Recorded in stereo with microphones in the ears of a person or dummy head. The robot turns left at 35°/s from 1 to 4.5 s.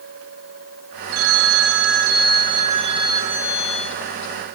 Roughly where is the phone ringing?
Right.